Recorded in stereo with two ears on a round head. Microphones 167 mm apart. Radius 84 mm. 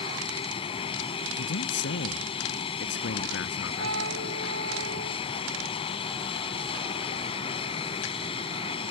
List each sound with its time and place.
0.0 s an aircraft: 30° left (ahead or behind)
1.4 s a man speaking: 70° left (ahead or behind)
3.8 s a flute: 85° right